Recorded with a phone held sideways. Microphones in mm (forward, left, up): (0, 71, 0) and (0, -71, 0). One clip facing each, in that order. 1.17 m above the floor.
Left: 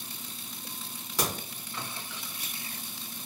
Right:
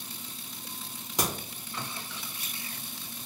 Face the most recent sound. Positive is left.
turn(degrees=-20)  # may be behind; listen again after turning